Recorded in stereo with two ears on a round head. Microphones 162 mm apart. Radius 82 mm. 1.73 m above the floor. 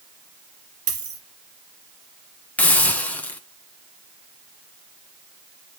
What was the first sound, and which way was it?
A dropped coin, 65° right (ahead or behind).